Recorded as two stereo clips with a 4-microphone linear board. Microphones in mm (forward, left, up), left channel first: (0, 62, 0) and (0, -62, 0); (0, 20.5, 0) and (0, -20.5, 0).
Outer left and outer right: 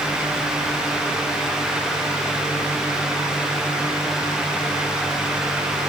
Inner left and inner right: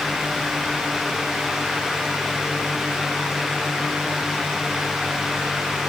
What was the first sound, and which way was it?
Only background noise.